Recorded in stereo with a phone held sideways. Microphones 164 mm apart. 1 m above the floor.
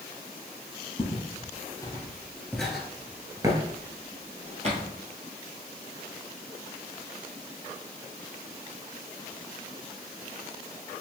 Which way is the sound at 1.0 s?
30° left (ahead or behind).